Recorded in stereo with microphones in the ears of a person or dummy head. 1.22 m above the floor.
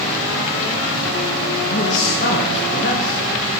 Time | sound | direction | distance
1.7 | a man speaking | 45° left (ahead or behind) | 1.6 m